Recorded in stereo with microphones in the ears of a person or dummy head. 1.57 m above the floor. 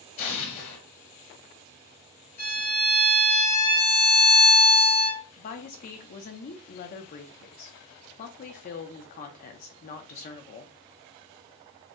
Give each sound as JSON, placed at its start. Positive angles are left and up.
{"t": 0.2, "sound": "an explosion", "side_deg": 45, "distance_m": 1.7}
{"t": 2.4, "sound": "a violin", "side_deg": 55, "distance_m": 2.5}
{"t": 5.4, "sound": "a woman speaking", "side_deg": 45, "distance_m": 0.9}